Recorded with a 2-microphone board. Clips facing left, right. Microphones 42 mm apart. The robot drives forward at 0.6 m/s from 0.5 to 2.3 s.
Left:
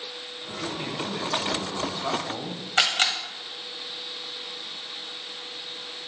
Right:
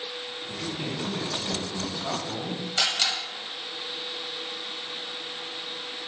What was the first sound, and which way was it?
A man speaking, 15° left (ahead or behind).